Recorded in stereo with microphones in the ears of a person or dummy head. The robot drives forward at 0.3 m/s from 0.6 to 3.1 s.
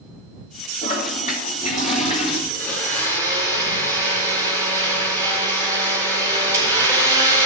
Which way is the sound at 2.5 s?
10° left (ahead or behind).